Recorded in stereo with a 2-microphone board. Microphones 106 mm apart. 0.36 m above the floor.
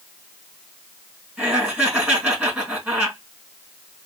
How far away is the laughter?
About 3 m.